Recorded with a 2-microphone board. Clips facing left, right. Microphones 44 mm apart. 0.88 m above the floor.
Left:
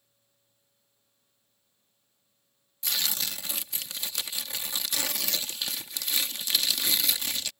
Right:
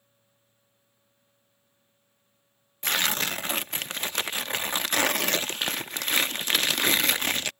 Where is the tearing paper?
50° right (ahead or behind).